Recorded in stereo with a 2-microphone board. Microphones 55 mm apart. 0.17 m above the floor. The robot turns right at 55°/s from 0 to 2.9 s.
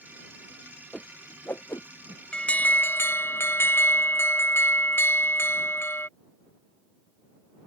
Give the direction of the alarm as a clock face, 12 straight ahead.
11 o'clock.